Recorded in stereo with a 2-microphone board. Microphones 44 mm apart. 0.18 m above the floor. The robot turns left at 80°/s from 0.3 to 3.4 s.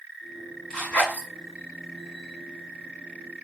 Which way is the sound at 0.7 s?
15° left (ahead or behind).